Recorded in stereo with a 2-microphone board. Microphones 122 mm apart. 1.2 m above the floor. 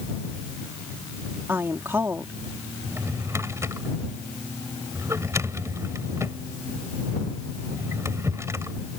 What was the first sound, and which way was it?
A woman speaking, 20° right (ahead or behind).